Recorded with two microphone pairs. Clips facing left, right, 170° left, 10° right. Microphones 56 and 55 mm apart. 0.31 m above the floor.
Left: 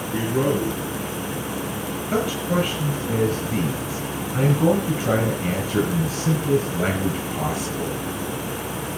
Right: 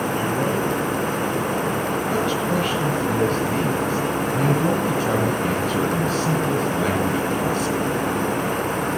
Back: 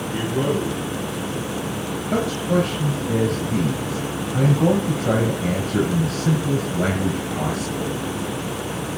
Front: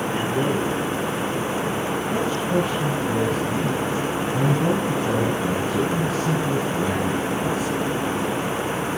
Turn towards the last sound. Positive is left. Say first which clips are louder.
# left 2 dB, back 4 dB
turn(degrees=165)